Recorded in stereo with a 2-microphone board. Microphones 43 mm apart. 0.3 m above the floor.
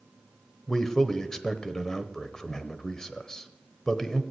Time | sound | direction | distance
0.7 | a man speaking | 15° left (ahead or behind) | 0.9 m